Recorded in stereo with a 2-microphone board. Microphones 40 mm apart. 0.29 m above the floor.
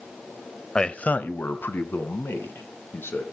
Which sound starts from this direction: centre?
A man speaking, at 0.8 s.